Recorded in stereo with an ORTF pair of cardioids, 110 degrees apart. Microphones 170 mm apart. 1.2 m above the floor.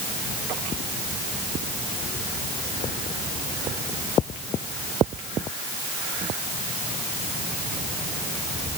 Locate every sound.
Only background noise.